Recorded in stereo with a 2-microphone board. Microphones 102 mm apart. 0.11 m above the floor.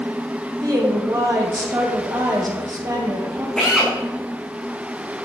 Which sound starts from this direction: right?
A woman speaking, at 0.6 s.